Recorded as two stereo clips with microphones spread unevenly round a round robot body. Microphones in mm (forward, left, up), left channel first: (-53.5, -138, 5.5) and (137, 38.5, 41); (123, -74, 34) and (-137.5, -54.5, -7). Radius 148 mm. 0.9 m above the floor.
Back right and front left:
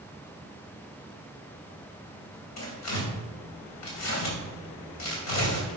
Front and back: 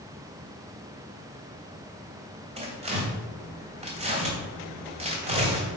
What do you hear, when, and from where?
2.6 s tearing paper: 115° right, 3 m